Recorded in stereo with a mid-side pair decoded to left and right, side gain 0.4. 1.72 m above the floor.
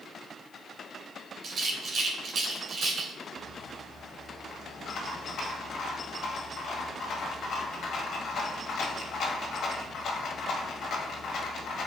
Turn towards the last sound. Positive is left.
turn(degrees=70)